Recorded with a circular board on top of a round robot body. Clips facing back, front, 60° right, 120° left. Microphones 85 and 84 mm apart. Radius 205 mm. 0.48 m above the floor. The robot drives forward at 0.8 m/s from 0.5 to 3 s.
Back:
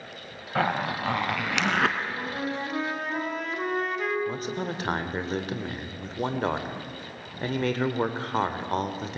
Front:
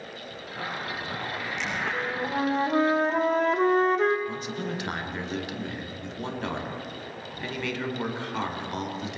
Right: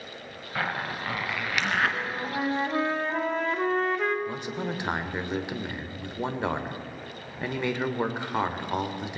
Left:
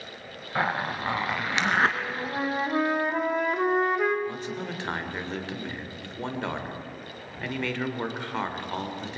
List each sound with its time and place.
0.6 s a zipper: 170° right, 0.5 m; by 2.0 s 175° right, 1.6 m
1.9 s a flute: 30° left, 2.5 m; by 4.2 s 45° left, 1.7 m
4.3 s a man speaking: 135° right, 2 m